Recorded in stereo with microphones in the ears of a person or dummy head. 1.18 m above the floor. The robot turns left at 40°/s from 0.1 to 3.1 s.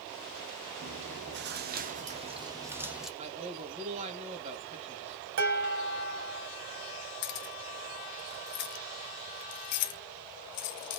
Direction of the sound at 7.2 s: 50° left (ahead or behind).